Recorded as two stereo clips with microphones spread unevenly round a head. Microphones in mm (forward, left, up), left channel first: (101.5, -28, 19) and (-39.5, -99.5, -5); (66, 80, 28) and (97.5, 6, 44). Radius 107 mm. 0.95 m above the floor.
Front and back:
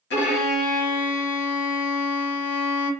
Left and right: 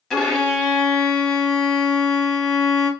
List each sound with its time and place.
0.1 s a violin: 30° left, 1.3 m